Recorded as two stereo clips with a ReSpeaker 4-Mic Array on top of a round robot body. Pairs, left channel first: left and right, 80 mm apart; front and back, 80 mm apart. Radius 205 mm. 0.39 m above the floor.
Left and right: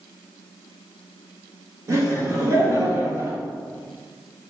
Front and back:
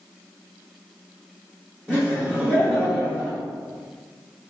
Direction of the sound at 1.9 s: 110° right.